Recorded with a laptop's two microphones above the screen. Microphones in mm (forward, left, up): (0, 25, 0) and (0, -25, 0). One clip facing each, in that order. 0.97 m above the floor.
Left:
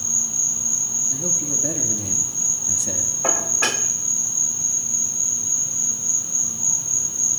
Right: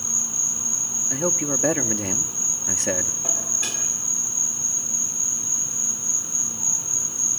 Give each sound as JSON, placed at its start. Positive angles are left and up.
{"t": 0.0, "sound": "an insect", "side_deg": -20, "distance_m": 3.0}
{"t": 1.1, "sound": "a man speaking", "side_deg": -65, "distance_m": 2.0}
{"t": 3.2, "sound": "dishes clattering", "side_deg": 80, "distance_m": 2.0}